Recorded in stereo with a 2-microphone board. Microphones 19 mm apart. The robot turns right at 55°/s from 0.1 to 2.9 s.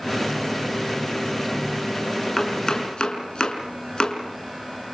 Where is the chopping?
10° left (ahead or behind), 5.5 m; by 4.2 s 40° left (ahead or behind), 5.5 m.